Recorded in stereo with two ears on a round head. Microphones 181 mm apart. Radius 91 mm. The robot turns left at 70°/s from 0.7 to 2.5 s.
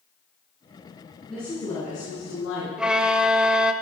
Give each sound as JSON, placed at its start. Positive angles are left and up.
{"t": 1.3, "sound": "a woman speaking", "azimuth_deg": 180, "distance_m": 5.5}
{"t": 2.8, "sound": "a violin", "side_deg": -5, "distance_m": 0.7}